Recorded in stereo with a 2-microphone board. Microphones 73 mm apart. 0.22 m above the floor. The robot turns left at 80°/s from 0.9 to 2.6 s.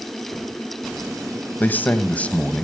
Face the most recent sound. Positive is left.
turn(degrees=10)  # may be behind; listen again after turning